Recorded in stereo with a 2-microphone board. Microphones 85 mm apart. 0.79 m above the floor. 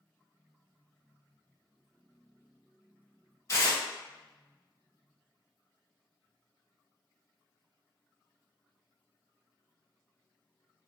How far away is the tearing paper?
About 1.9 m.